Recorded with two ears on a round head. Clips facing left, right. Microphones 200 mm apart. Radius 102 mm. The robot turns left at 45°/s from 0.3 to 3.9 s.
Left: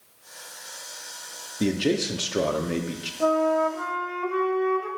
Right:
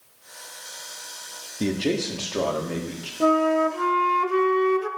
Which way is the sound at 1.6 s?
5° left (ahead or behind).